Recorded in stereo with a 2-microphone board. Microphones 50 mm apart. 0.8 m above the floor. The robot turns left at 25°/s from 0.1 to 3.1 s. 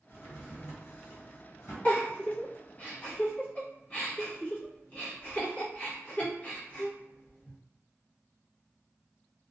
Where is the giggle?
30° left (ahead or behind), 0.8 m.